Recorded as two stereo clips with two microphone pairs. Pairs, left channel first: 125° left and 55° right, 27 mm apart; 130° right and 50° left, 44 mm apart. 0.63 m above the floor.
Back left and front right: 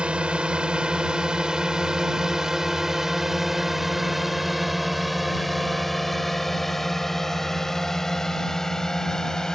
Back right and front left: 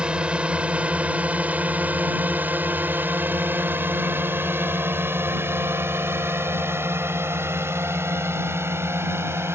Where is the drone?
15° right; by 9.6 s 55° left.